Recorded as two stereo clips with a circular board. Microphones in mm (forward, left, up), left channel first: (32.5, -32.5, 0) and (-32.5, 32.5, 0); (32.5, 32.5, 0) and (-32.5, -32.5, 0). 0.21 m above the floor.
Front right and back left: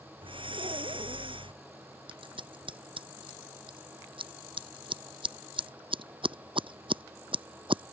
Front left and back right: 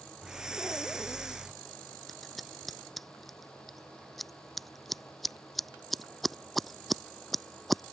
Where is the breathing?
145° left.